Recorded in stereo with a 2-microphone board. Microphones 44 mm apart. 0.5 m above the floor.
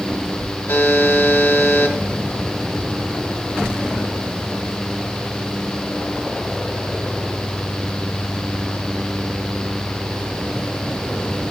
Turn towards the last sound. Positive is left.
turn(degrees=60)  # may be behind; listen again after turning